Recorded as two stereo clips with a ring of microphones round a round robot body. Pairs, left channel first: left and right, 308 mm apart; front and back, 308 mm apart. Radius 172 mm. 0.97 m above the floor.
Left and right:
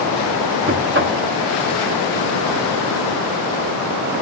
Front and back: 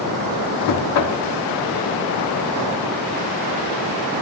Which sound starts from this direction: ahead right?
Knocking, at 0.7 s.